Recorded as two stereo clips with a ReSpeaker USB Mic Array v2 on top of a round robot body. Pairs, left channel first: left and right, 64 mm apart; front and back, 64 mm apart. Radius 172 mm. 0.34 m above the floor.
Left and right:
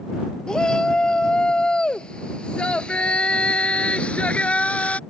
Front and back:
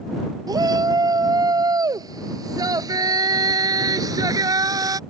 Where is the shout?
165° left; by 5.0 s 155° left.